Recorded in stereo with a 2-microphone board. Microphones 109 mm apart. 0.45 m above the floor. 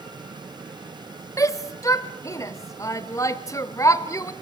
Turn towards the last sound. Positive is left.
turn(degrees=30)  # may be behind; listen again after turning